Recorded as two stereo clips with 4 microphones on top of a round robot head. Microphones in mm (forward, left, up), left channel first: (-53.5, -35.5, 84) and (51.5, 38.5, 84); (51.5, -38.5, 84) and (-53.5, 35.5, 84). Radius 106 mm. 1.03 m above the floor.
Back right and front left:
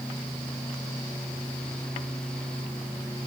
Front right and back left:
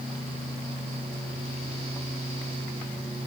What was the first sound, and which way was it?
Only background noise.